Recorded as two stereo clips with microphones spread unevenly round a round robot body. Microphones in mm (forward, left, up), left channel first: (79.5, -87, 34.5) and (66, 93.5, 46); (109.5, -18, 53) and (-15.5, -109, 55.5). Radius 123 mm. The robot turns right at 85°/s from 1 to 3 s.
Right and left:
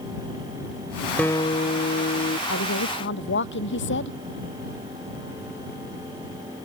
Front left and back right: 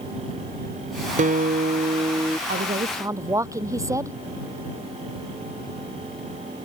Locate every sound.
1.2 s a guitar: 165° right; by 2.4 s 65° right
2.5 s a woman speaking: 120° right; by 4.2 s 75° right